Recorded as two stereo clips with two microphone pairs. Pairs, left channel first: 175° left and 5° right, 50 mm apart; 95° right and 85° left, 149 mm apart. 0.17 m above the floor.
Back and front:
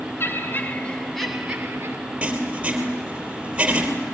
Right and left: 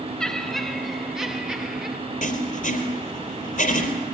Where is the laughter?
Straight behind, 1.9 m; by 2.0 s 10° left, 1.7 m.